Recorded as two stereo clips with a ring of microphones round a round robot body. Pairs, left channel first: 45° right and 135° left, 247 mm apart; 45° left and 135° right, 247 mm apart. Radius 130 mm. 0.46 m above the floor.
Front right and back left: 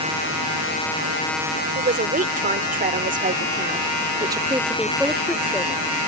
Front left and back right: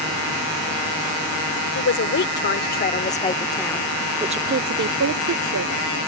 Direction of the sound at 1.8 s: 80° left.